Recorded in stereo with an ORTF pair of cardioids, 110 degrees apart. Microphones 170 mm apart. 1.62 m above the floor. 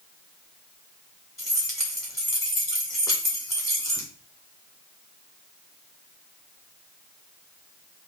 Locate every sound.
1.4 s keys jangling: 20° left, 1.7 m